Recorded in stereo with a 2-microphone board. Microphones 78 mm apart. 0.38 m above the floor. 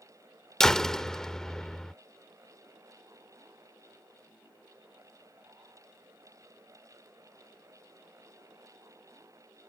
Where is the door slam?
10° left (ahead or behind).